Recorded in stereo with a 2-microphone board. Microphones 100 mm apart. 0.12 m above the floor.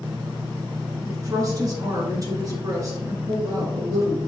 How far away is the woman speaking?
About 1.4 m.